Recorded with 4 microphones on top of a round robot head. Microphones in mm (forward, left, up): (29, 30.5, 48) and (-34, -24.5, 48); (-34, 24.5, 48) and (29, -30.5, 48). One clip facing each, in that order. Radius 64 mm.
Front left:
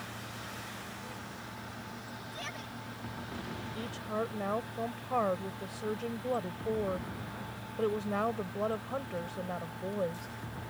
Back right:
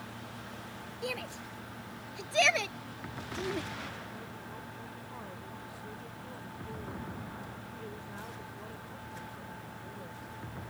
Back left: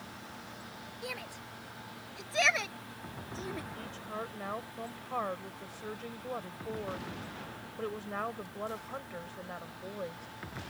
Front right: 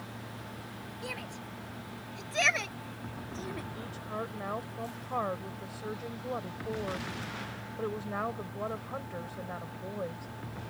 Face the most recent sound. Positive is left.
turn(degrees=40)